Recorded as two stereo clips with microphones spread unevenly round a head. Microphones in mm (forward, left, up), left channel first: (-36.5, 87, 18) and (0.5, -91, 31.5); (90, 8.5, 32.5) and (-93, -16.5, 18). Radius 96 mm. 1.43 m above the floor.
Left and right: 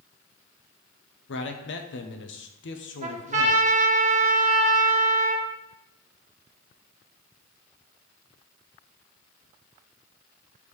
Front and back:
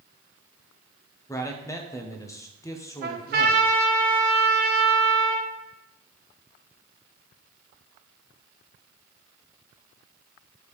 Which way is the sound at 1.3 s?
85° left.